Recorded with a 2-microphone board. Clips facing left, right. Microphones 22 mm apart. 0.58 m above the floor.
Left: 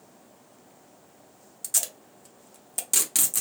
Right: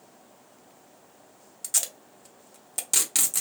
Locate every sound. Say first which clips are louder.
1.6 s tape being pulled: even; 10° right (ahead or behind), 0.8 m